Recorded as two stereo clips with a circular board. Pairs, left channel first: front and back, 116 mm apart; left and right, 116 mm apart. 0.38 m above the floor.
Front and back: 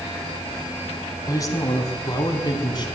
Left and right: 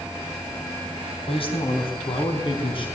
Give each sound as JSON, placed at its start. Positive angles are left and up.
{"t": 1.3, "sound": "a man speaking", "azimuth_deg": 60, "distance_m": 3.5}